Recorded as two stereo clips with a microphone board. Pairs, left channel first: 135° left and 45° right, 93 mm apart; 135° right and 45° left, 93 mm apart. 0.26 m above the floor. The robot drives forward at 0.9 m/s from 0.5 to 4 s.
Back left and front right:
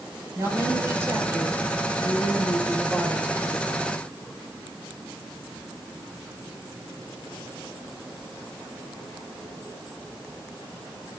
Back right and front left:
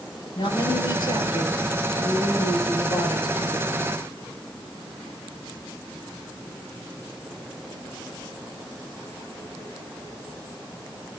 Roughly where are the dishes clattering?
No dishes clattering in this recording.